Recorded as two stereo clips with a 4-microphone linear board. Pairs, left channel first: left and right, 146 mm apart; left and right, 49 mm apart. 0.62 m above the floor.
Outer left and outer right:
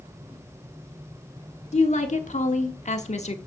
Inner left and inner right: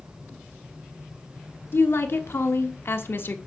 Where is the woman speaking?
50° left (ahead or behind), 1.2 m.